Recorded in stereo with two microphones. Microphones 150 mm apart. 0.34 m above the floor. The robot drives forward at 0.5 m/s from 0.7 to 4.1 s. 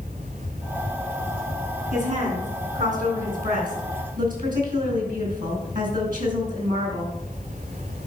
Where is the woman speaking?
60° right (ahead or behind), 4 m; by 7.1 s 70° right (ahead or behind), 3.5 m.